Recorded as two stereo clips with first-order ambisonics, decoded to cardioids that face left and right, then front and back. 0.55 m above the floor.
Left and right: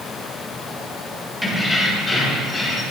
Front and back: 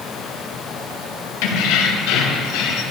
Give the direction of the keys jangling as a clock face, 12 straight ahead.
12 o'clock.